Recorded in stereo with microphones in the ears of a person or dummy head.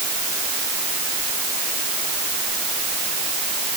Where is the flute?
I don't hear a flute.